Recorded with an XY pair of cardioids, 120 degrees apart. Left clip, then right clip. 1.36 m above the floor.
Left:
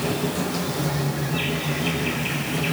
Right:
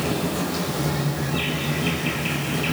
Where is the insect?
5° right, 7 m.